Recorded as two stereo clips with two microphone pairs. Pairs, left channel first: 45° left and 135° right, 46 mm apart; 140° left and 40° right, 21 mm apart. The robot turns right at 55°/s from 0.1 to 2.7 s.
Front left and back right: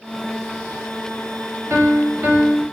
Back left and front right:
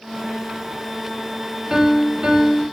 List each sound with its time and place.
1.7 s a piano: 105° right, 1.9 m; by 2.6 s 50° right, 1.9 m